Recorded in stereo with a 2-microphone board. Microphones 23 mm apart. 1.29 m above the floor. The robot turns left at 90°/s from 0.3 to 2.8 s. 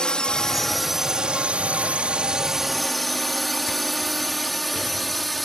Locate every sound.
0.0 s a drone: 35° left (ahead or behind); by 5.5 s centre (ahead or behind)